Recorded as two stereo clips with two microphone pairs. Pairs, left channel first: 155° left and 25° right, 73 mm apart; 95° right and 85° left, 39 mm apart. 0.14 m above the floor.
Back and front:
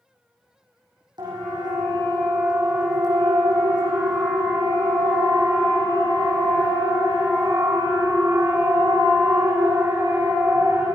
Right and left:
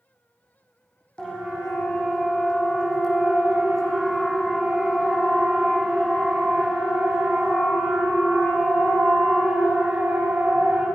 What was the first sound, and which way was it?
A siren, 25° right.